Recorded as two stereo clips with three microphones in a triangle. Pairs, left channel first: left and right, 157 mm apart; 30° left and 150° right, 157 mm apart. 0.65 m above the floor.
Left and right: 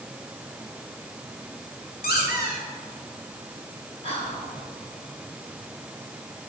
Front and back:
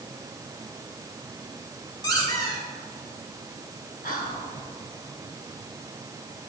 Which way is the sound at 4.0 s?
45° left.